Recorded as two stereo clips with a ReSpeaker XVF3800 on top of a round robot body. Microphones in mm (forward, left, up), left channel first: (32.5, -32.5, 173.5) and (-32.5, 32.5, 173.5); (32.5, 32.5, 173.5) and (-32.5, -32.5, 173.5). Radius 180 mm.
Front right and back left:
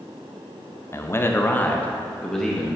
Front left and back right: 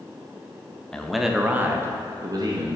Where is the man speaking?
30° right, 0.9 m; by 2.8 s 135° right, 1.2 m.